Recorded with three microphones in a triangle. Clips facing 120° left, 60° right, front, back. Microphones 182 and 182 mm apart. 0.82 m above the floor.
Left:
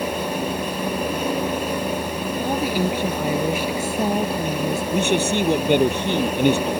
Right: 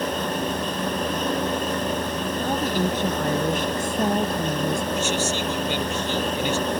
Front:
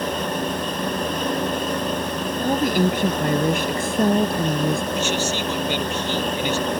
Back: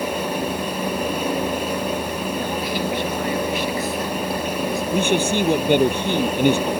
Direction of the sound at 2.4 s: 40° left.